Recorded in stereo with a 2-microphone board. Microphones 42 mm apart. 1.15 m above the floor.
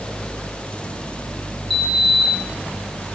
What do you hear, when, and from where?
1.7 s a sliding door: 5° right (ahead or behind), 5 m